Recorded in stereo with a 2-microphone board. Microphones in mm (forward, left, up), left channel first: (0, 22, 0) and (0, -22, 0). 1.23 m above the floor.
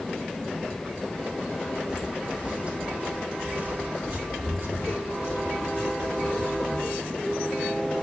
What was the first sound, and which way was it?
Footsteps, 20° right (ahead or behind).